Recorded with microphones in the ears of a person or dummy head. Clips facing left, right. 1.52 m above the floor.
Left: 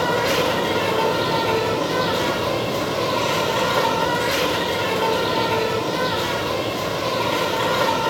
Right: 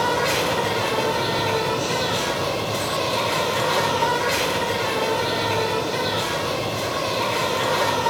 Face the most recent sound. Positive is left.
turn(degrees=5)  # may be behind; listen again after turning